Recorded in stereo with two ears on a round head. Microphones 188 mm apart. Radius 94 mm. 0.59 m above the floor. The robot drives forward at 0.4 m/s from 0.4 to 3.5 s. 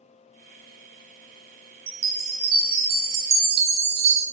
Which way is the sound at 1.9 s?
45° right (ahead or behind).